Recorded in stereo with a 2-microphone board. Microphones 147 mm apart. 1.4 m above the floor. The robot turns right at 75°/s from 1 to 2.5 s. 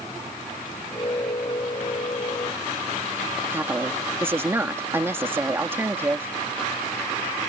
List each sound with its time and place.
3.5 s a woman speaking: 15° right (ahead or behind)